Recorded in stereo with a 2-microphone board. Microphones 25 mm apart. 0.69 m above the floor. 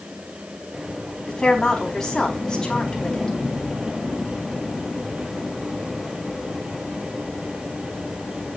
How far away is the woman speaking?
About 4.5 m.